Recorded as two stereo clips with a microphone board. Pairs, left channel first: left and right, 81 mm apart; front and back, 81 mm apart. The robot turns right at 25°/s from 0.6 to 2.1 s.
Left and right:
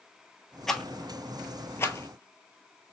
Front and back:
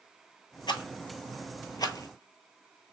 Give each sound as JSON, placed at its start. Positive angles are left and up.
{"t": 0.7, "sound": "a rattle", "azimuth_deg": 5, "distance_m": 0.7}